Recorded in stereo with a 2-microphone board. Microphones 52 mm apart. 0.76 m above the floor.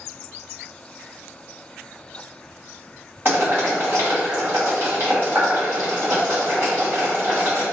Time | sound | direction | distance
3.2 | boiling | 50° right (ahead or behind) | 1.8 m